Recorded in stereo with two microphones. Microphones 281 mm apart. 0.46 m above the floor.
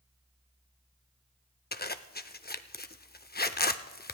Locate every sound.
1.7 s a zipper: 35° left (ahead or behind), 0.5 m